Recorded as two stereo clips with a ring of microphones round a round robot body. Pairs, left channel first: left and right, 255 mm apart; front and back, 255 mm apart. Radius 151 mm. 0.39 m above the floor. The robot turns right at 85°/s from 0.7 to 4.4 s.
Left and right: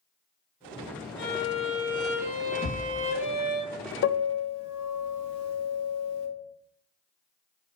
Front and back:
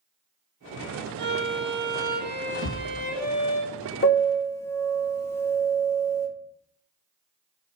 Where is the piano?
50° left, 0.7 m; by 6.3 s 80° left, 0.7 m.